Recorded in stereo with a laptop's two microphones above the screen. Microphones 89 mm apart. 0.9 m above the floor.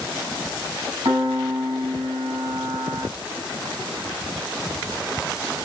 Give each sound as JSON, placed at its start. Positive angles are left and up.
{"t": 1.1, "sound": "a piano", "side_deg": -50, "distance_m": 5.5}